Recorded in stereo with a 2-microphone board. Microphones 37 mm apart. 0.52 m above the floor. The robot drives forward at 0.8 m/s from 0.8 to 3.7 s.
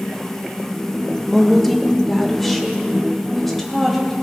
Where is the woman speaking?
5° left (ahead or behind), 0.7 m; by 4.1 s centre (ahead or behind), 2.5 m.